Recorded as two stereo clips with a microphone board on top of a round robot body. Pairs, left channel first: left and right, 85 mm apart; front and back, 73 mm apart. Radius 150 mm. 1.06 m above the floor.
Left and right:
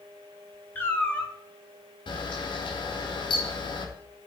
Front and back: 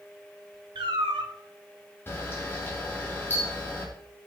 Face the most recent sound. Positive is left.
turn(degrees=65)